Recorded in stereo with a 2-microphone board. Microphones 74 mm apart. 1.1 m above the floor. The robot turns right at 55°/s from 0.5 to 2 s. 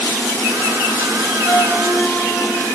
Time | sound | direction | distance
1.4 | a flute | 125° left | 0.8 m